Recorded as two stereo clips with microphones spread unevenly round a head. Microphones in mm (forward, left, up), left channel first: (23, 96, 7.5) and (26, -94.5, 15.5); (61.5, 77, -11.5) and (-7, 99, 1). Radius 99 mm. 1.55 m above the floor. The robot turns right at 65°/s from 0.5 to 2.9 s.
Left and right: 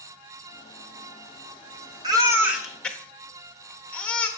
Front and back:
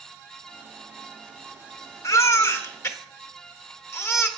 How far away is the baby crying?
About 1.0 m.